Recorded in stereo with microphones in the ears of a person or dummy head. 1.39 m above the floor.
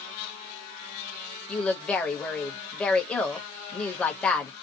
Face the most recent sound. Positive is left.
turn(degrees=5)  # may be behind; listen again after turning